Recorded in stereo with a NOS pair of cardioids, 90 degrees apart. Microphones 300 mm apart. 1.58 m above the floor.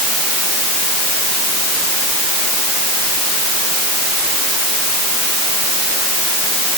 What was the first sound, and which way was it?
Only background noise.